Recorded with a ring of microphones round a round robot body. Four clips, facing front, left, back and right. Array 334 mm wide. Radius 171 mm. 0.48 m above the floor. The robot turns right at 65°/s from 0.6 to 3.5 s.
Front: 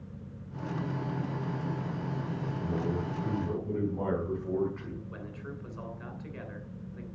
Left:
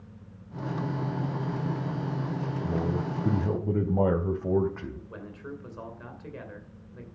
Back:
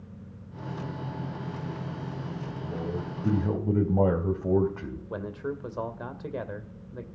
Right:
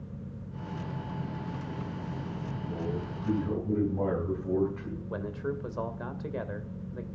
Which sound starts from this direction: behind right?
A man speaking, at 5.1 s.